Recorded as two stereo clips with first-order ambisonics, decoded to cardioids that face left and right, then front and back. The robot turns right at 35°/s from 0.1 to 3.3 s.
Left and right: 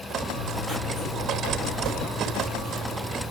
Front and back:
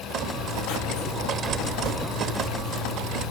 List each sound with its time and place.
0.3 s writing: 20° right, 1.7 m; by 3.3 s 85° left, 1.7 m